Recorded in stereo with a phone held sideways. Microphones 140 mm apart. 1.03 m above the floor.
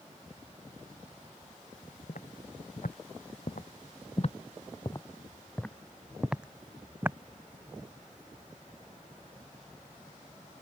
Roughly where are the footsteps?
Left.